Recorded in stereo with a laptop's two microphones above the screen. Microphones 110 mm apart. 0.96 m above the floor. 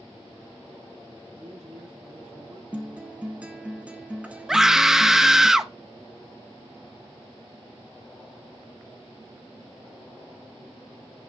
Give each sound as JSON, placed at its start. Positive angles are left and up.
{"t": 1.3, "sound": "a man speaking", "side_deg": -65, "distance_m": 7.5}
{"t": 2.7, "sound": "a guitar", "side_deg": -10, "distance_m": 0.7}
{"t": 4.5, "sound": "a scream", "side_deg": -5, "distance_m": 0.8}